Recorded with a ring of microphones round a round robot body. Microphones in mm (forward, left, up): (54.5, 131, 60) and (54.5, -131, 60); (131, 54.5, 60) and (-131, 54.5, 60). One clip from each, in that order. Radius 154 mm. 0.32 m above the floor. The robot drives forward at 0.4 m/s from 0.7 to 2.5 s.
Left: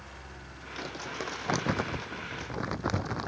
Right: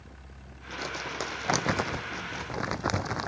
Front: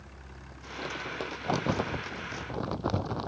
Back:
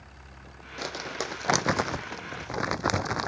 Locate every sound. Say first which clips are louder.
0.8 s crumpling: right 3 dB, back 2 dB; 160° right